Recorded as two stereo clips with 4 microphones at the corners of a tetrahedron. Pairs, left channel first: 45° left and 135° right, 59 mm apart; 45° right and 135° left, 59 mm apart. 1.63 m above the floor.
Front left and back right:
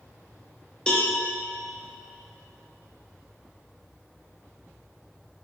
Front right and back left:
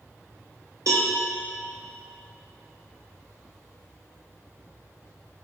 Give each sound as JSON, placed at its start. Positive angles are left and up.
{"t": 0.9, "sound": "a cowbell", "azimuth_deg": 120, "distance_m": 0.9}